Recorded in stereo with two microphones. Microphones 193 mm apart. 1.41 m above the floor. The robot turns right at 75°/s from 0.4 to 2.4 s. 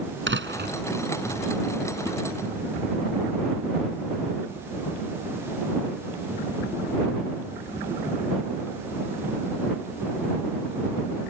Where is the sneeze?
I don't hear a sneeze.